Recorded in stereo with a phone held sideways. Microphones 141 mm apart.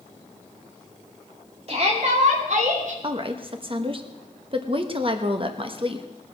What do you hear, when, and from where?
1.7 s a shout: 45° right (ahead or behind), 2.5 m; by 2.9 s 65° right (ahead or behind), 3.5 m
3.0 s a woman speaking: 40° right (ahead or behind), 1.1 m